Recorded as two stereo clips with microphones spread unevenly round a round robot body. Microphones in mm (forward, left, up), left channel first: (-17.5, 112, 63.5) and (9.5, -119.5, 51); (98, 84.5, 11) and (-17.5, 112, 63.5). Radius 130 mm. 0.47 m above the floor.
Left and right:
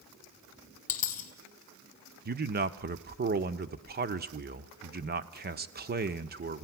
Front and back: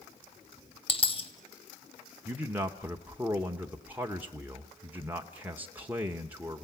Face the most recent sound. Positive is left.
turn(degrees=-95)